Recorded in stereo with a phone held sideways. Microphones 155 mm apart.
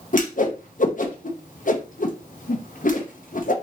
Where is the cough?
I don't hear a cough.